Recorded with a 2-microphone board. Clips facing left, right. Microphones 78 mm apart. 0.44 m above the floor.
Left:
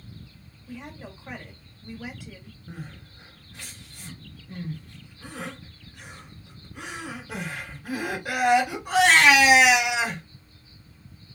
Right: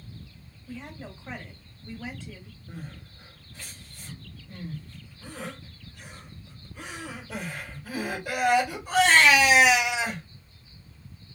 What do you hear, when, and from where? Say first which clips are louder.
0.7 s a woman speaking: even; 10° left (ahead or behind), 1.8 m
2.7 s crying: left 1 dB; 75° left (ahead or behind), 3 m